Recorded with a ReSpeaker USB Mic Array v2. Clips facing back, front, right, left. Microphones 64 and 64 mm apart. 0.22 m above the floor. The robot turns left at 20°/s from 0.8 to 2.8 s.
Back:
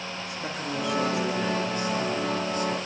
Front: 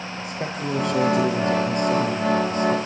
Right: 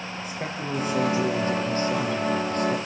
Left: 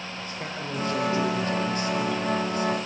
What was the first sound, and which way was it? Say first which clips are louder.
A man speaking: front 6 dB, right 3 dB; 10° right.